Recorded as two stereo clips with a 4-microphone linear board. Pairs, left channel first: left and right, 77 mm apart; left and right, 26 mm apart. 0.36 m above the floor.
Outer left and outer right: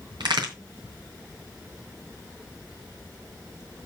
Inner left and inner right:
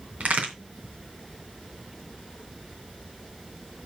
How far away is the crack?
About 3 m.